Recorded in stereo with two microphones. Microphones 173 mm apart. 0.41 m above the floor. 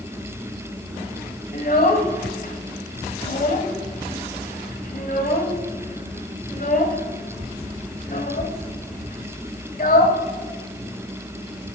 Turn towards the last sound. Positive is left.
turn(degrees=55)  # may be behind; listen again after turning